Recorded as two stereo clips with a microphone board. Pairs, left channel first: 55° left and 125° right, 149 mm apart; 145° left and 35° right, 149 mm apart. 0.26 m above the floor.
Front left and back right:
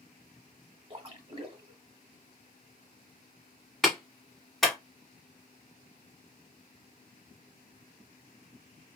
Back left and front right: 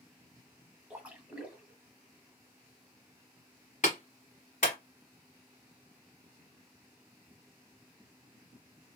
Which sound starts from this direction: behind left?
A clap, at 3.8 s.